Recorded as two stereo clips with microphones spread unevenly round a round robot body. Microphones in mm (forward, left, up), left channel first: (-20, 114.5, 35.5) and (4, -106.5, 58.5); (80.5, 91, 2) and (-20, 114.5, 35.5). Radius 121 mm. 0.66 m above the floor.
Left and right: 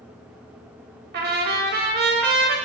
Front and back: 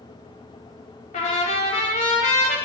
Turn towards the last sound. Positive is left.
turn(degrees=-40)